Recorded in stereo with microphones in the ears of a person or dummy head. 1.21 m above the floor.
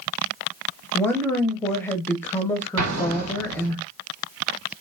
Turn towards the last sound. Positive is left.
turn(degrees=-70)  # may be behind; listen again after turning